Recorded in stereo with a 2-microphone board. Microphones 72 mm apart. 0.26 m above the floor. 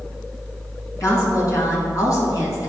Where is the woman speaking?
45° left (ahead or behind), 2 m.